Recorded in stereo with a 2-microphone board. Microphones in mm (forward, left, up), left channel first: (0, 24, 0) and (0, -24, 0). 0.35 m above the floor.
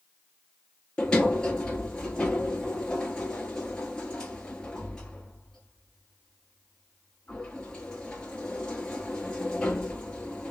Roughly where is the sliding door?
Centre.